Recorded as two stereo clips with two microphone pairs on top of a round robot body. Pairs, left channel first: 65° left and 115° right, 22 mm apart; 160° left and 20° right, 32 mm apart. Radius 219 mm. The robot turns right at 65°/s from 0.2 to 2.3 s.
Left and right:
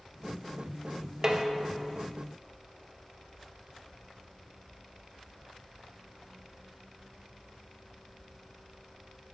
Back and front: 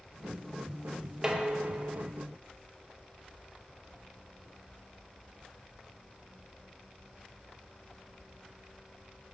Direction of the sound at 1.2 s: 80° right.